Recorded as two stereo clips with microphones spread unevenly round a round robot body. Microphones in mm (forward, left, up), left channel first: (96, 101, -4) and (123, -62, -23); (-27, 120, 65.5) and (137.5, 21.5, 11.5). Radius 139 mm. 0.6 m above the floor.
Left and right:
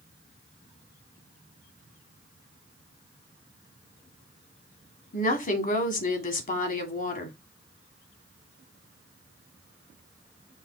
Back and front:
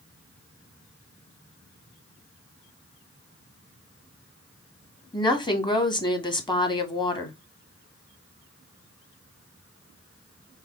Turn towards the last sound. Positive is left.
turn(degrees=75)